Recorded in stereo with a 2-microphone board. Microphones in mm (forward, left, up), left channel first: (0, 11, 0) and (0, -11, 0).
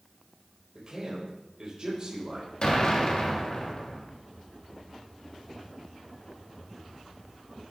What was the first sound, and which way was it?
A man speaking, 35° right (ahead or behind).